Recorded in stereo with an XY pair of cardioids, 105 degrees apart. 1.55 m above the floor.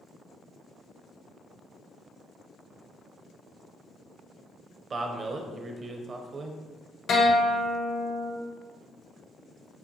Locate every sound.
4.9 s a man speaking: 40° right, 0.7 m
7.1 s a guitar: 55° left, 1.1 m